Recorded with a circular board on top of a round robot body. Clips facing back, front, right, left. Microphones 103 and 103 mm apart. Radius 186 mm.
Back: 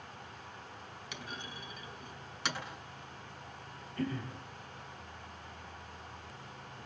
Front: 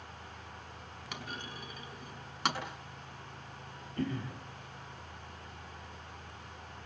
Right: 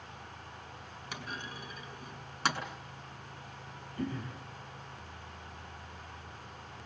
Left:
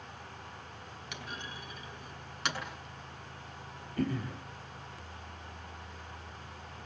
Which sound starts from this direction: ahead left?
Throat clearing, at 4.0 s.